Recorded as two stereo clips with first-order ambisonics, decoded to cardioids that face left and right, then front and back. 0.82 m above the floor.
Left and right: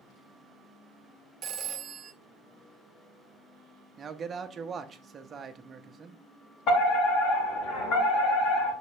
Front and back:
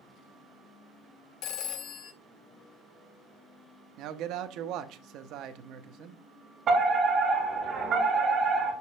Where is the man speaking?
155° right, 0.7 m.